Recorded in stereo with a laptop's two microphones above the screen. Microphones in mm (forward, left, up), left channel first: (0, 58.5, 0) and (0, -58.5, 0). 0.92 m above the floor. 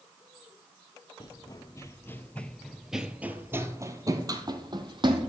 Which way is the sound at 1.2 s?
40° left (ahead or behind).